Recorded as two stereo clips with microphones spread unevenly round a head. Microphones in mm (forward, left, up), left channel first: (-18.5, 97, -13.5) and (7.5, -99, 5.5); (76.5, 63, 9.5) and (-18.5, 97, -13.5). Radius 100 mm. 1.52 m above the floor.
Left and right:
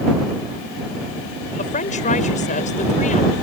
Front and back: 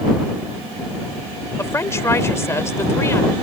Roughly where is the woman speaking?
Ahead left.